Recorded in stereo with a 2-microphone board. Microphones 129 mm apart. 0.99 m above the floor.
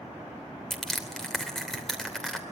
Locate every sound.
0.7 s crushing: 5° left (ahead or behind), 3 m